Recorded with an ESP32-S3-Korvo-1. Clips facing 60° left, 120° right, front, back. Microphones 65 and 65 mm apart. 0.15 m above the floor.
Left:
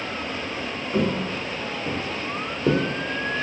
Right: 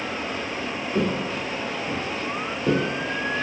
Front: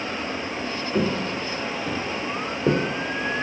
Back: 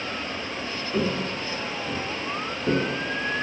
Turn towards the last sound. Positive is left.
turn(degrees=5)